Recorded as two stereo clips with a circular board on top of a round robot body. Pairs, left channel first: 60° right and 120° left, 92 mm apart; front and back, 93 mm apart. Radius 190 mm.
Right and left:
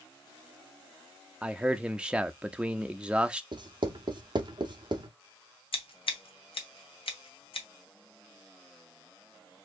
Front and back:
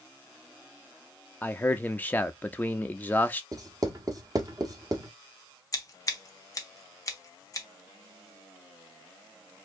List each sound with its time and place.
1.4 s a man speaking: 50° left, 0.8 m
3.5 s writing: 140° left, 1.3 m
5.7 s scissors: 50° right, 1.2 m